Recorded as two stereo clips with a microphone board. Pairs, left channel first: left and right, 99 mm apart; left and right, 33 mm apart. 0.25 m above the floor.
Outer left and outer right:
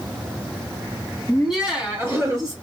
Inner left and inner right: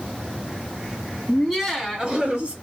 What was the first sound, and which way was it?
Laughter, 5° left (ahead or behind).